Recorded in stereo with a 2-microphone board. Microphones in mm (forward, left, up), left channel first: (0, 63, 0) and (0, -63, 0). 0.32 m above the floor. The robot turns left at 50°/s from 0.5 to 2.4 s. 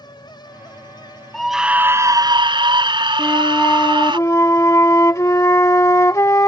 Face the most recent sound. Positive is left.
turn(degrees=25)  # may be behind; listen again after turning